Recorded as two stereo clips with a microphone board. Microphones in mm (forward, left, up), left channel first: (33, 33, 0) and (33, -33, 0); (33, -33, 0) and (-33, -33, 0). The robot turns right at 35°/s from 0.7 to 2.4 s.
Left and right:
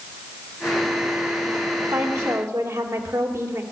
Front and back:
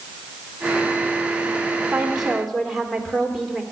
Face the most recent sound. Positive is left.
turn(degrees=-90)